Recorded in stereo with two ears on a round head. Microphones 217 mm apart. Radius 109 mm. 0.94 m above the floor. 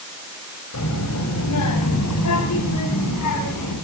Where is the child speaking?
80° left, 4.5 m; by 3.8 s 85° left, 7.5 m.